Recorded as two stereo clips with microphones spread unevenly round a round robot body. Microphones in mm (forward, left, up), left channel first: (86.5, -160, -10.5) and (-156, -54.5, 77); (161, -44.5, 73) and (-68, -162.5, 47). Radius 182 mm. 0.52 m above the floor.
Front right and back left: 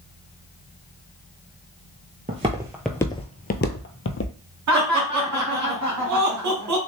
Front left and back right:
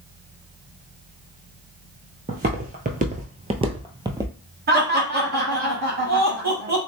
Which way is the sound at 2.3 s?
145° left.